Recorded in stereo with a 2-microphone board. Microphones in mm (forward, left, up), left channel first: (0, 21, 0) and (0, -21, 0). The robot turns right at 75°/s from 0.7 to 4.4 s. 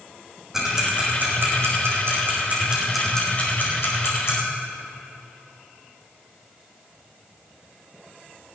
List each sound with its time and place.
0.5 s ticking: 10° right (ahead or behind), 5 m; by 4.3 s 75° left (ahead or behind), 5 m